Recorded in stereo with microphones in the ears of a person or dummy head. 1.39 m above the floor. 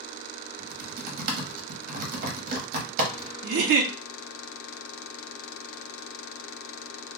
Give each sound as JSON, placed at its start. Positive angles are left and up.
{"t": 0.6, "sound": "typing on a keyboard", "side_deg": -45, "distance_m": 0.9}
{"t": 3.4, "sound": "a giggle", "side_deg": -60, "distance_m": 0.5}